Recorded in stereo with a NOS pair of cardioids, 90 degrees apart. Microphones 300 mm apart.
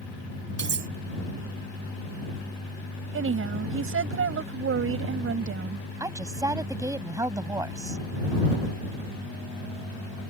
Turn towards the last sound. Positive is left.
turn(degrees=-10)